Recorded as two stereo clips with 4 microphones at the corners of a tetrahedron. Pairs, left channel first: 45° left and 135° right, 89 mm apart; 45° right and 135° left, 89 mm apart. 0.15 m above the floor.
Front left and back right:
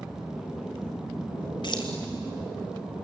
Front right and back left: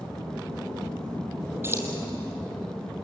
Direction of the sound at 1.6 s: 75° left.